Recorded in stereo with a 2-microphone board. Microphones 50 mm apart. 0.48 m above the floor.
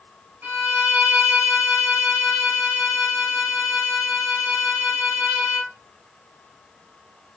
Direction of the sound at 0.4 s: 40° right (ahead or behind).